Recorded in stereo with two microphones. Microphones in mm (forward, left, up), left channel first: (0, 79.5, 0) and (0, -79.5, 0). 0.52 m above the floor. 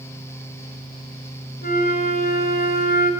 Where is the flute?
75° left (ahead or behind), 1.9 m.